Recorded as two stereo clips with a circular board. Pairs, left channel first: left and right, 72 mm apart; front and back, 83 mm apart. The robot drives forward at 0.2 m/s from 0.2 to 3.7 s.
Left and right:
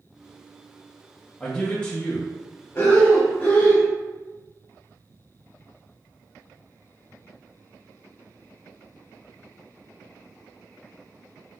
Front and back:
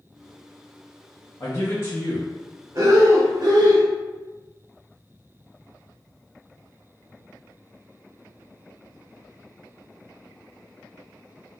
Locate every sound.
1.4 s a man speaking: 30° left, 0.7 m; by 2.3 s 45° left, 0.6 m
2.8 s breathing: 140° left, 1.1 m; by 3.9 s 145° left, 1.2 m